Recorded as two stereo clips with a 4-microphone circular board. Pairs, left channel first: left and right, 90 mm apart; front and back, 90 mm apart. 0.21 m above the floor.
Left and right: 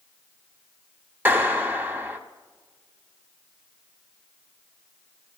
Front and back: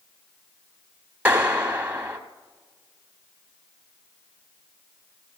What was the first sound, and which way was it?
A clap, 130° right.